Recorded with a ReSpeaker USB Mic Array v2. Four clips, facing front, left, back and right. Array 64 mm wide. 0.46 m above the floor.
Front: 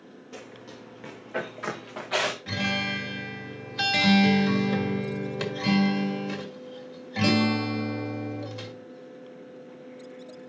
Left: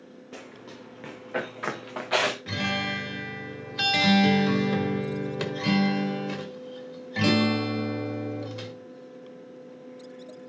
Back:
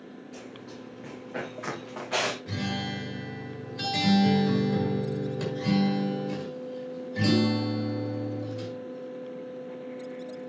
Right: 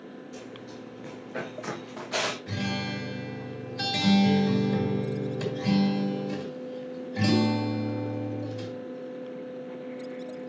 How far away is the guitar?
About 1.6 m.